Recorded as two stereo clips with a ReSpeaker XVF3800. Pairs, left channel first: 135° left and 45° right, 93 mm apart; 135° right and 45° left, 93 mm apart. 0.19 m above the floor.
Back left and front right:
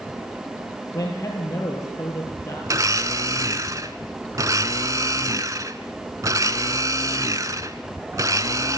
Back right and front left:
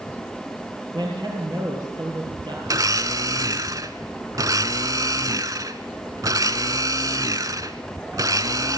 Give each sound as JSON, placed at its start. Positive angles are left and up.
{"t": 0.9, "sound": "a man speaking", "azimuth_deg": 80, "distance_m": 4.5}
{"t": 2.7, "sound": "a blender", "azimuth_deg": 0, "distance_m": 0.9}